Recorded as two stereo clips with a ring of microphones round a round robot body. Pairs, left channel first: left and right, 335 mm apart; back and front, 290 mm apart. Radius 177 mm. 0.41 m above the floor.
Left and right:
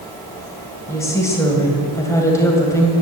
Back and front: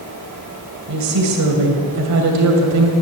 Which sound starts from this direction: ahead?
A woman speaking, at 0.9 s.